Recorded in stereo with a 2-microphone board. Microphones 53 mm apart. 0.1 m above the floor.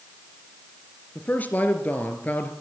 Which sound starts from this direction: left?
A man speaking, at 1.1 s.